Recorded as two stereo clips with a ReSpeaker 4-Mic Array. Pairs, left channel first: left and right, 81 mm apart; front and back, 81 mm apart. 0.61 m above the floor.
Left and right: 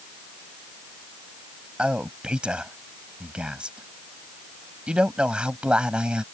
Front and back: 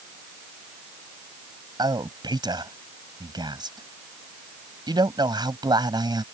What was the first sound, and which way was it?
A man speaking, 165° right.